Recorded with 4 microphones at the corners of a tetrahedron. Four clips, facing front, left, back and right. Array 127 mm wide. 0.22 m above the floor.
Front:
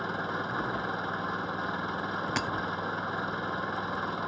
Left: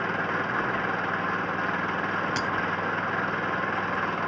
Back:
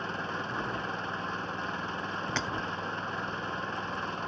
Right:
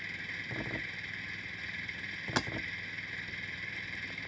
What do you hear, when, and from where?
0.0 s an engine running: 80° left
2.4 s breaking glass: 60° right